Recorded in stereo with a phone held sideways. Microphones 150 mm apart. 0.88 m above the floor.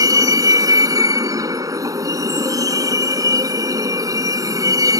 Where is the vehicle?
25° right (ahead or behind).